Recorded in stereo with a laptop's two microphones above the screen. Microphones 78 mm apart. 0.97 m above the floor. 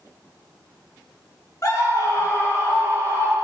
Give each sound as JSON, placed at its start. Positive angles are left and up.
{"t": 1.6, "sound": "a scream", "side_deg": 45, "distance_m": 1.9}